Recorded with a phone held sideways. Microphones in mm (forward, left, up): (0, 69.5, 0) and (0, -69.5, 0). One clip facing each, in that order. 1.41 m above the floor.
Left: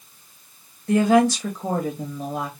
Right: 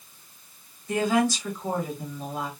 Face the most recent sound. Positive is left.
turn(degrees=65)  # may be behind; listen again after turning